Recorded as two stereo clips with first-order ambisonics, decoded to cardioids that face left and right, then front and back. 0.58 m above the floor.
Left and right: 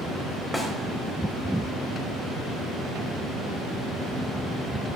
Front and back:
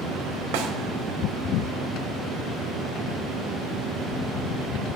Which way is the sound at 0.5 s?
175° left.